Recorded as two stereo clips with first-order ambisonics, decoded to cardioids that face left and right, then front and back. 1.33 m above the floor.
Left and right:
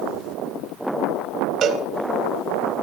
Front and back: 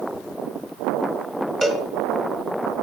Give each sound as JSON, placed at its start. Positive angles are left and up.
{"t": 1.6, "sound": "a cowbell", "azimuth_deg": -95, "distance_m": 1.3}